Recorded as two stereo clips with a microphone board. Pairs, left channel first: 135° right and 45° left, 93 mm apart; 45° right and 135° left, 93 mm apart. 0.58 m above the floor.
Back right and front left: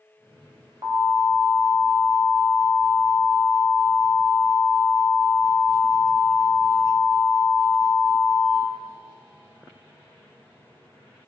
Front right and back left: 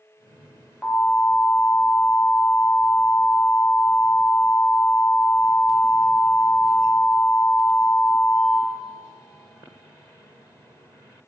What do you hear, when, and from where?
0.8 s an alarm: 30° left, 0.8 m